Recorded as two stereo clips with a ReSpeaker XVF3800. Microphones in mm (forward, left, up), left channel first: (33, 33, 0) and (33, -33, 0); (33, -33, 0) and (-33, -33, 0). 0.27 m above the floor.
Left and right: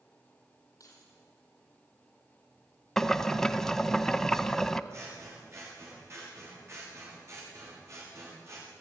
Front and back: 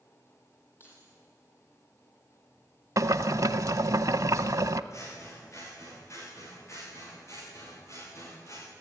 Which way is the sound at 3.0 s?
175° left.